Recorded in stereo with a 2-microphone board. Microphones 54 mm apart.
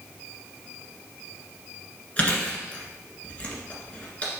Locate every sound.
2.2 s chewing: 25° left (ahead or behind), 1.6 m